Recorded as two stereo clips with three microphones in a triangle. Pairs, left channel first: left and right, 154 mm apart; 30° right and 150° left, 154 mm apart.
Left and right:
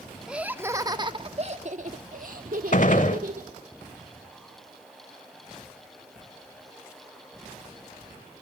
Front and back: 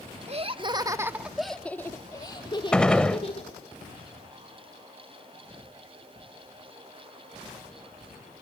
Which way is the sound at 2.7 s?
55° left.